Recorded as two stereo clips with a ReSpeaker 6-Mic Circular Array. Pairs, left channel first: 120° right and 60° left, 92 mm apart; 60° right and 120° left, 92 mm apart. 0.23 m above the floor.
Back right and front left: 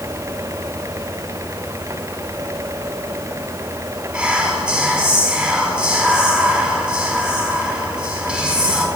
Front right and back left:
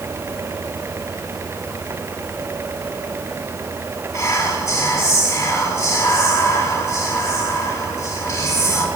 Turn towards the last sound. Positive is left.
turn(degrees=-15)